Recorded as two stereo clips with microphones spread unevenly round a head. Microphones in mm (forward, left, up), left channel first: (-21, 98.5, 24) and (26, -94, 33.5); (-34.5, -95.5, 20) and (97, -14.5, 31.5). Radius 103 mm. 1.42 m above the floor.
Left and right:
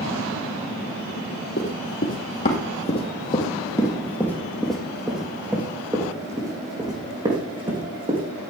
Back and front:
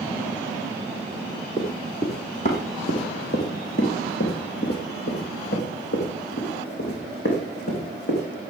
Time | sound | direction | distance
1.6 | running footsteps | 140° left | 2.5 m